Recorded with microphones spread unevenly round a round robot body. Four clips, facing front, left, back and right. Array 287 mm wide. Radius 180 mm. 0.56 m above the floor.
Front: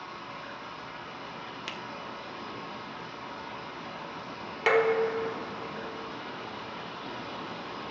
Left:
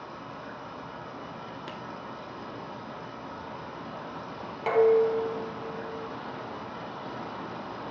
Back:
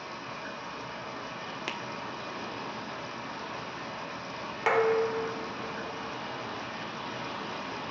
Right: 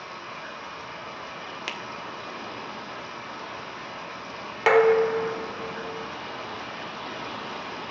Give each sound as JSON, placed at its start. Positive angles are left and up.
{"t": 0.0, "sound": "running water", "azimuth_deg": 125, "distance_m": 4.0}
{"t": 1.7, "sound": "a finger snap", "azimuth_deg": 175, "distance_m": 1.1}
{"t": 4.7, "sound": "dishes clattering", "azimuth_deg": -70, "distance_m": 1.5}